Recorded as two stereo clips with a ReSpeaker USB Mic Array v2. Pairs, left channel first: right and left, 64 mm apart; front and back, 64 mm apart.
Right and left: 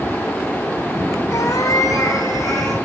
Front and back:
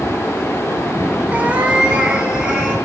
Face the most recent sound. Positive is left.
turn(degrees=-105)